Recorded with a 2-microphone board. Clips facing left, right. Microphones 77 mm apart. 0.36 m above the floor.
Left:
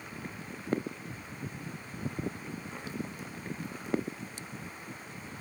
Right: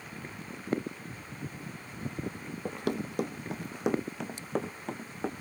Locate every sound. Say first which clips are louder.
2.6 s running footsteps: right 10 dB; 70° right (ahead or behind); by 5.3 s 80° right